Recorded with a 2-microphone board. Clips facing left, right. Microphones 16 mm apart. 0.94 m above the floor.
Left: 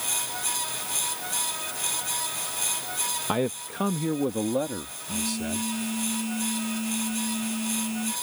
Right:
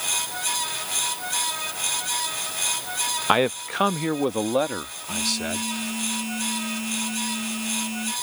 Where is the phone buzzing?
30° right (ahead or behind).